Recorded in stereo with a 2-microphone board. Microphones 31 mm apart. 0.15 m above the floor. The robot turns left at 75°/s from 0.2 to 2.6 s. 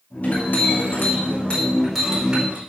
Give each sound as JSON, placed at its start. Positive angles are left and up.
{"t": 0.2, "sound": "a clink", "azimuth_deg": 130, "distance_m": 5.0}